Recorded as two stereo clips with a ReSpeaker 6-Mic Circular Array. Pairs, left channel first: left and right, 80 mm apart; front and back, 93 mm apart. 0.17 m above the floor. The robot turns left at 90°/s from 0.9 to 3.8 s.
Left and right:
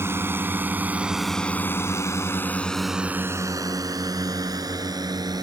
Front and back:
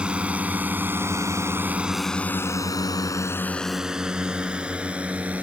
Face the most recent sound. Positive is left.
turn(degrees=-110)